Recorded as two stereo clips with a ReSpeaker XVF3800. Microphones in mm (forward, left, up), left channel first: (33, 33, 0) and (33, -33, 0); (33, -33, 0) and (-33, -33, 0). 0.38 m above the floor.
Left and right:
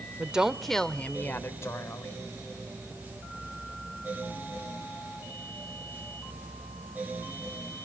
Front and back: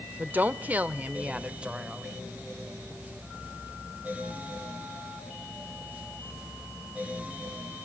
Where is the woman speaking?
145° right, 0.9 m; by 2.2 s 100° left, 1.3 m.